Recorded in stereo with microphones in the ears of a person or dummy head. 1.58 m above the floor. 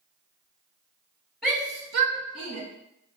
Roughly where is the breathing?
No breathing in this recording.